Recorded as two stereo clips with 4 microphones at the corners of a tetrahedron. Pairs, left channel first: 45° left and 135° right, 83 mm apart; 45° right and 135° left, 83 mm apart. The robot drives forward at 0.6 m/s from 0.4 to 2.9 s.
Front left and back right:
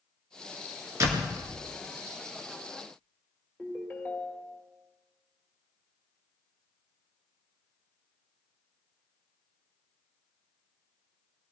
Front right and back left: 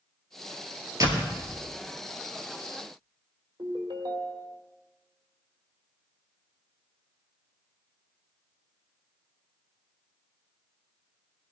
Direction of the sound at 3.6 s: 120° left.